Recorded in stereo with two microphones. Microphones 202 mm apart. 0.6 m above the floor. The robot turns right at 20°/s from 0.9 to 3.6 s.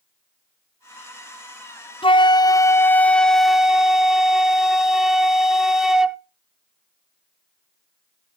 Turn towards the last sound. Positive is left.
turn(degrees=-175)